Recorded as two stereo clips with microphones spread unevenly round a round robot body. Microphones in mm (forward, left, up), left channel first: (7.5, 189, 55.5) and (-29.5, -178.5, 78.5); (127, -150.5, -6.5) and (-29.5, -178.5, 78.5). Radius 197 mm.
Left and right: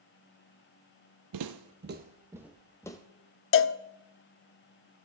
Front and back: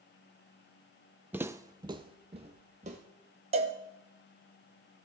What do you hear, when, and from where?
1.3 s footsteps: 115° right, 0.7 m; by 3.0 s 165° left, 1.0 m
3.5 s a cowbell: 110° left, 0.5 m